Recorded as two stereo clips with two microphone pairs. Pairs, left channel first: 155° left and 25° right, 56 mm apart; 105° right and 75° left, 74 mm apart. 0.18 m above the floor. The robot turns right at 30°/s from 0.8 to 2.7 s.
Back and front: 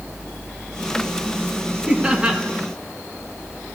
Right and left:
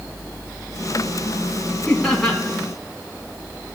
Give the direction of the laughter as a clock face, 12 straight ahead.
2 o'clock.